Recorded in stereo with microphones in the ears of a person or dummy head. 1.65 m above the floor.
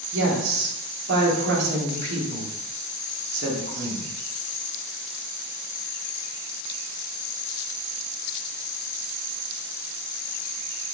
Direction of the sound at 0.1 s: 60° right (ahead or behind).